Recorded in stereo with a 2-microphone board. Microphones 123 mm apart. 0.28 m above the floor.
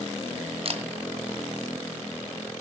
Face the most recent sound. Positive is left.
turn(degrees=-50)  # may be behind; listen again after turning